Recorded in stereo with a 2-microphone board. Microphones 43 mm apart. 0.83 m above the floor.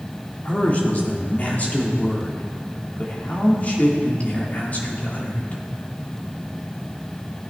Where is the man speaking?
35° left (ahead or behind), 1.9 m.